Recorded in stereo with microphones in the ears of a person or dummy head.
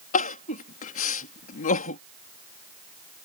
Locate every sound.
0.1 s crying: 45° left (ahead or behind)